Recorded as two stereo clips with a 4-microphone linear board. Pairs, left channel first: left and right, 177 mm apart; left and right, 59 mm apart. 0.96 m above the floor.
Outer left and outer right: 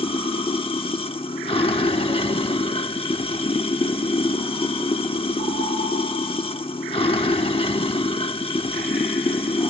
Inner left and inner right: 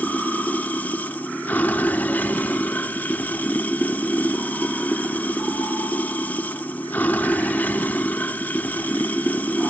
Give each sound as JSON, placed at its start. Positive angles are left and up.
{"t": 0.0, "sound": "running water", "side_deg": 30, "distance_m": 1.0}